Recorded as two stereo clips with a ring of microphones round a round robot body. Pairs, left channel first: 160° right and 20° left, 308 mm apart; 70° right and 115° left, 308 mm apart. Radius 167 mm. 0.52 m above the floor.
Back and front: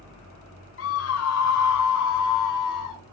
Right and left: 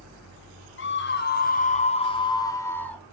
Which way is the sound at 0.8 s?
115° right.